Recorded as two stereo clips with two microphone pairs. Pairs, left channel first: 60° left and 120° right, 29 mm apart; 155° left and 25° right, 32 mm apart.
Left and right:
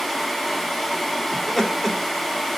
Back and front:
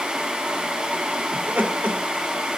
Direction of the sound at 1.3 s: 25° right.